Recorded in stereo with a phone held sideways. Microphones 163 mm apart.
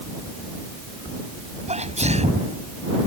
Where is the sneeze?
45° right (ahead or behind).